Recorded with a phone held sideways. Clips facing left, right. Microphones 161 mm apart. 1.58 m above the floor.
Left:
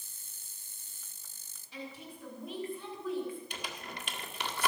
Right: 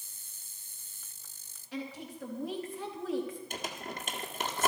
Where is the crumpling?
45° right (ahead or behind), 1.6 m.